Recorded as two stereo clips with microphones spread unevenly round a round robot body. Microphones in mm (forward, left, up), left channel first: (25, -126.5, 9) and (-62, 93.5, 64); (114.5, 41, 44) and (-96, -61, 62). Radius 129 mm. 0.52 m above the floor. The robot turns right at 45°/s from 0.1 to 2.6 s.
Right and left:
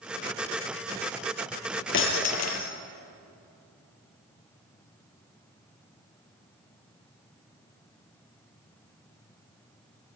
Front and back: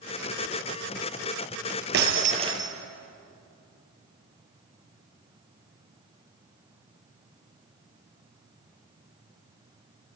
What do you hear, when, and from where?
1.9 s breaking glass: 110° right, 3.5 m; by 2.7 s 80° right, 3.5 m